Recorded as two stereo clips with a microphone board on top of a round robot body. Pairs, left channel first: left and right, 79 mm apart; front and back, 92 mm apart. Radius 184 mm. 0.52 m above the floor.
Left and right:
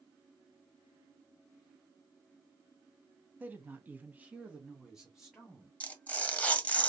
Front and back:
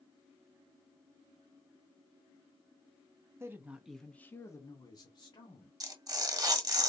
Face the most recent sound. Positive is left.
turn(degrees=155)